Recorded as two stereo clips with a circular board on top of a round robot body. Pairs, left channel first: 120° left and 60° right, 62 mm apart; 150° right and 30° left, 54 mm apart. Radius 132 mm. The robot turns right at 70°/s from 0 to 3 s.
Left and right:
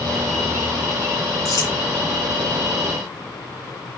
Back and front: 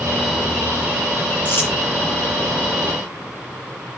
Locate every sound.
1.4 s crumpling: 150° left, 7 m; by 1.7 s 165° left, 7 m